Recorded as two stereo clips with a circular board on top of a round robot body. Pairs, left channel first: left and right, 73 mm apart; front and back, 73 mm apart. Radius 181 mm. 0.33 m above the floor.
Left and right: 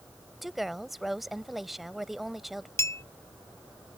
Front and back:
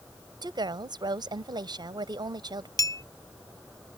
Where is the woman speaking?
Straight behind.